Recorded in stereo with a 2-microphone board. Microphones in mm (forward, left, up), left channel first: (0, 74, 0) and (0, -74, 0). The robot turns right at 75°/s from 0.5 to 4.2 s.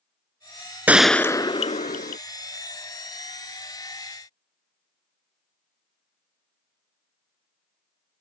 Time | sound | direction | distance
0.9 | a gunshot | 15° right | ?